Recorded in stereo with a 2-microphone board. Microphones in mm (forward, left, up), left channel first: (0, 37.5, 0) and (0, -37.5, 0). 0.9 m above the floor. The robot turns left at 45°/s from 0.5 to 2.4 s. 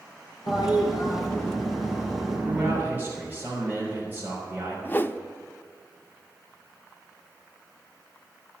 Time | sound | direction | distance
0.5 | a toilet flushing | 70° left | 4 m
2.5 | a man speaking | 25° right (ahead or behind) | 3.5 m
4.8 | a whoosh | 30° left (ahead or behind) | 0.5 m